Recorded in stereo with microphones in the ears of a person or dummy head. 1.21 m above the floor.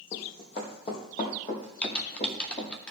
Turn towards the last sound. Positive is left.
turn(degrees=5)  # may be behind; listen again after turning